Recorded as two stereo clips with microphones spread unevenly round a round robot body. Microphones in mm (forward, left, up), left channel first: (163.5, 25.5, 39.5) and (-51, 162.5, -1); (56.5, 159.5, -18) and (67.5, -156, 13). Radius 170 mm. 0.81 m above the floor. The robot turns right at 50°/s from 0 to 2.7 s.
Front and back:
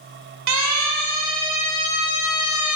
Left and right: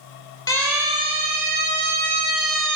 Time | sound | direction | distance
0.5 | a siren | 170° left | 6 m